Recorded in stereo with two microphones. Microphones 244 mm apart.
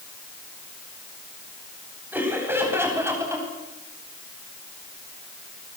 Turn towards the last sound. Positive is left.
turn(degrees=-10)  # may be behind; listen again after turning